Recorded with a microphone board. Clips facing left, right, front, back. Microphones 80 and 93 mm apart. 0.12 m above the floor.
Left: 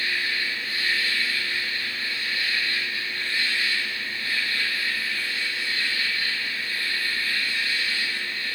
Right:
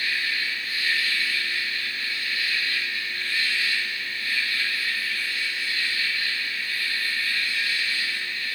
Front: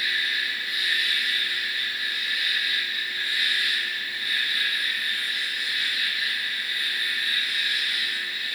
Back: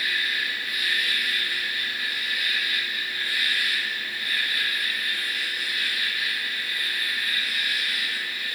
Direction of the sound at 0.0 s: 140° left.